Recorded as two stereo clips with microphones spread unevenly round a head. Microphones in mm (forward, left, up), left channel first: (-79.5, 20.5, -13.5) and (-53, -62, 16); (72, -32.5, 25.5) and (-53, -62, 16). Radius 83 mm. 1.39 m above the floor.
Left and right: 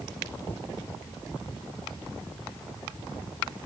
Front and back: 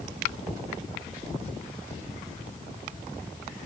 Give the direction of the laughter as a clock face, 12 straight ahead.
No laughter in this recording.